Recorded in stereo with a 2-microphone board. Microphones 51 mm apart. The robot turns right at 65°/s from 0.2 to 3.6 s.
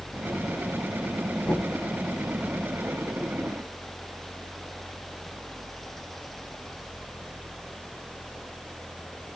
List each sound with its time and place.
1.4 s knocking: 25° left (ahead or behind), 1.5 m; by 1.8 s 15° left (ahead or behind), 1.5 m